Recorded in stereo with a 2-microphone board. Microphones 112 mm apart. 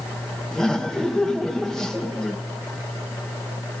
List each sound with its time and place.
0.5 s laughter: 5° left (ahead or behind), 1.0 m